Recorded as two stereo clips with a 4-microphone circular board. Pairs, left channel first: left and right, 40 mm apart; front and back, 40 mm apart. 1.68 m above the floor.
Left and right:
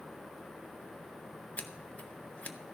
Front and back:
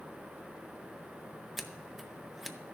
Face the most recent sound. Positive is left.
turn(degrees=95)